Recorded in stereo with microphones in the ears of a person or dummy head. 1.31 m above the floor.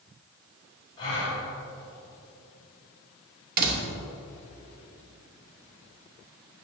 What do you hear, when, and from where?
1.0 s a gasp: 35° left (ahead or behind), 3.5 m
3.6 s a door slam: 55° right (ahead or behind), 1.1 m